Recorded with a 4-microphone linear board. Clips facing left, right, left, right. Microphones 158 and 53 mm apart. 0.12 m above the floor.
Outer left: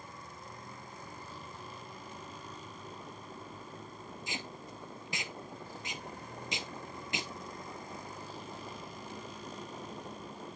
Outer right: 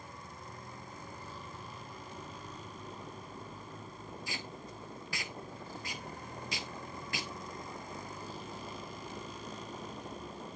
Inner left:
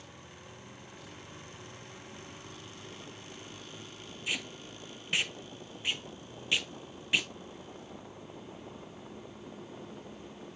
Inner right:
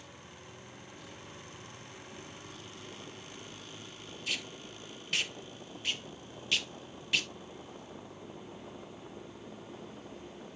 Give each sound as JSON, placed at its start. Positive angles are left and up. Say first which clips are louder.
{"t": 4.3, "sound": "tape being pulled", "louder": "outer left 3 dB, inner left 2 dB", "side_deg": 20, "distance_m": 0.7}